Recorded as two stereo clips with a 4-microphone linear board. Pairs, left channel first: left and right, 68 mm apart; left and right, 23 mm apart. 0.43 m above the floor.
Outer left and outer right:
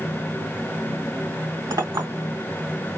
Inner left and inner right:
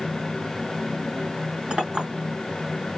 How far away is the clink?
About 2.5 m.